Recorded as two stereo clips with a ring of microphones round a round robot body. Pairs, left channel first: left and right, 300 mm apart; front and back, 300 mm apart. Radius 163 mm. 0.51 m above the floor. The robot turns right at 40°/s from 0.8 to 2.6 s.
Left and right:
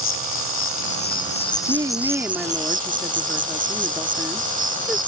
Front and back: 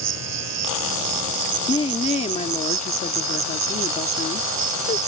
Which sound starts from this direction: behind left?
An insect, at 0.0 s.